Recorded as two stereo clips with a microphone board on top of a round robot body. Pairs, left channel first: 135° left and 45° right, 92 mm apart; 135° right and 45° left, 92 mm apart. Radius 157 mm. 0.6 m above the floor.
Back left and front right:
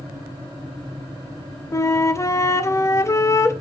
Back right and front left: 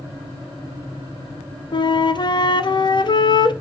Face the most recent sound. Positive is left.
turn(degrees=-170)